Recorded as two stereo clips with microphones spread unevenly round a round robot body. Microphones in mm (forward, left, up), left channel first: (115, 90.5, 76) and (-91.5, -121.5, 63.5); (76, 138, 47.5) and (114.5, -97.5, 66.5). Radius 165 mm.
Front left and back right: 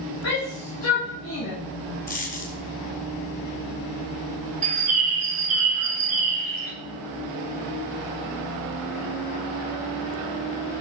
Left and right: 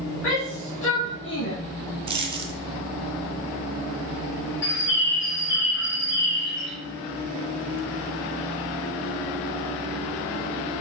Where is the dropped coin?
15° right, 1.5 m.